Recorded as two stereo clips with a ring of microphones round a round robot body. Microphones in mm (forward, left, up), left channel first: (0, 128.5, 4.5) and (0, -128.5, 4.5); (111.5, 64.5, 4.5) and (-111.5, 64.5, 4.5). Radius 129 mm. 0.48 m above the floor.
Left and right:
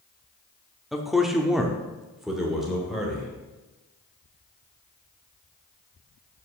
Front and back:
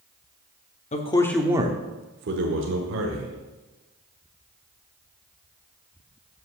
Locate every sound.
0.9 s a man speaking: straight ahead, 0.8 m; by 3.3 s straight behind, 1.9 m